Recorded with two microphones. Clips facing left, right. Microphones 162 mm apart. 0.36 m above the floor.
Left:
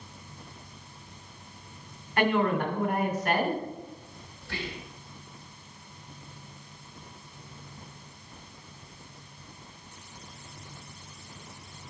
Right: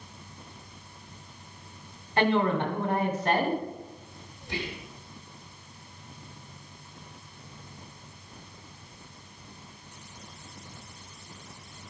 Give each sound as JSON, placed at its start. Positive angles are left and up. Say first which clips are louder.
{"t": 2.2, "sound": "a woman speaking", "louder": "right 1 dB", "side_deg": -30, "distance_m": 2.0}
{"t": 4.4, "sound": "whispering", "louder": "right 2 dB", "side_deg": -20, "distance_m": 1.1}